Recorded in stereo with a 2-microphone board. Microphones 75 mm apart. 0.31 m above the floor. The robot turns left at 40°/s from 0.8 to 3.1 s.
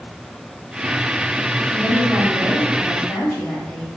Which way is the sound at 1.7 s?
145° right.